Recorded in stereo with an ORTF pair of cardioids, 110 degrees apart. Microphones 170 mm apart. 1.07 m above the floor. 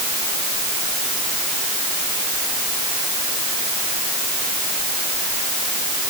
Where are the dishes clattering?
No dishes clattering in this recording.